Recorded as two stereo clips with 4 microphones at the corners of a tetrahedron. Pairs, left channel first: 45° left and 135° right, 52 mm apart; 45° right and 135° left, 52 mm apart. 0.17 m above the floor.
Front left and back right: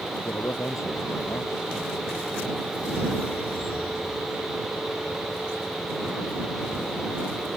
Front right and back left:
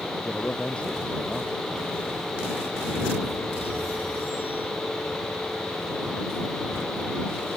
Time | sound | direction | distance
0.1 | a man speaking | 25° left | ?